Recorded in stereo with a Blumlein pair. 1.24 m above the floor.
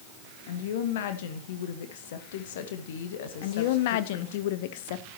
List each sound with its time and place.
0.5 s a woman speaking: 55° left, 1.8 m
3.4 s a woman speaking: 50° left, 1.0 m